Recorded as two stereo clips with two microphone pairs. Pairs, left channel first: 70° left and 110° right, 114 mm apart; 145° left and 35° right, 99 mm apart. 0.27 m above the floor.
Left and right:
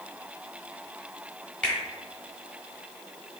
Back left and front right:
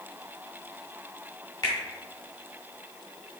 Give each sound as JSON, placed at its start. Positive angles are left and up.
{"t": 1.6, "sound": "a finger snap", "azimuth_deg": 135, "distance_m": 1.2}